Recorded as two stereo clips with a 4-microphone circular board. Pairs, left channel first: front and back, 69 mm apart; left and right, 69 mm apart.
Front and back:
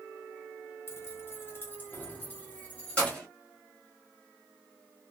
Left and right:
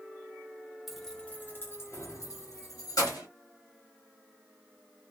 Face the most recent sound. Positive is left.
turn(degrees=75)